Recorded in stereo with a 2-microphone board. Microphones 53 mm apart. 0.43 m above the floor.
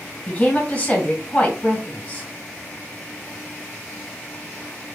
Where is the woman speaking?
25° left (ahead or behind), 2 m.